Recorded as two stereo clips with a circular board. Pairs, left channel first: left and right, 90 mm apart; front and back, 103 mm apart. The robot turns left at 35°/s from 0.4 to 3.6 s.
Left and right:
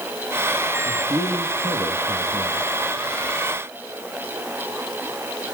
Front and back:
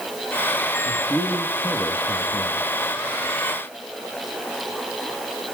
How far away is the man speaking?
About 4 m.